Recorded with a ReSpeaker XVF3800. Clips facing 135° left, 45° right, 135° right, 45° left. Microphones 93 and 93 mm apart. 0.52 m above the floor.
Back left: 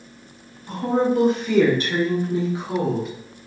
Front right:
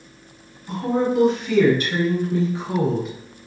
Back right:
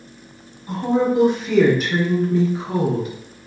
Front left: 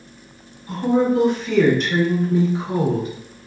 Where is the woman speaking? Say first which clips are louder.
Back left 1 dB, front left 1 dB; 165° left, 1.3 m; by 3.1 s 40° left, 0.9 m.